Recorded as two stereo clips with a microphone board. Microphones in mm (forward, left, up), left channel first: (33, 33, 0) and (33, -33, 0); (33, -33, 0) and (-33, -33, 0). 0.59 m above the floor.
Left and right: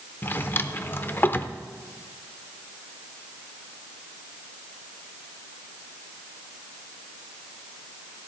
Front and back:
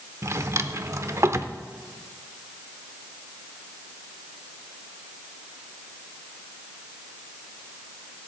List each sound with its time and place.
0.2 s a drawer: 145° left, 0.7 m